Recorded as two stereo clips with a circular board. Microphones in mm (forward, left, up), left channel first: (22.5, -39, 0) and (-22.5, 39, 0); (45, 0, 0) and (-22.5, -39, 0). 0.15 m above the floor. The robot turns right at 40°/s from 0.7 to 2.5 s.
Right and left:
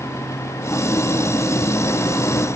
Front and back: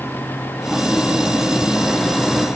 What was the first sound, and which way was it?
Only background noise.